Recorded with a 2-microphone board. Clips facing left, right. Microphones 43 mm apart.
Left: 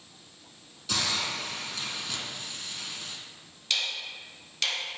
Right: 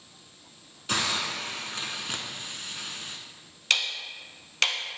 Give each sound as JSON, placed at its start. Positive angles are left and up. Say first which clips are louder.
{"t": 0.9, "sound": "a hiss", "louder": "right 2 dB", "side_deg": -40, "distance_m": 0.6}
{"t": 3.7, "sound": "ticking", "louder": "right 4 dB", "side_deg": -55, "distance_m": 0.5}